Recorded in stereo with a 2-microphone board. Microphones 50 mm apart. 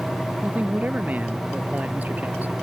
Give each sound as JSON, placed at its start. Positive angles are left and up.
{"t": 0.4, "sound": "a man speaking", "side_deg": -30}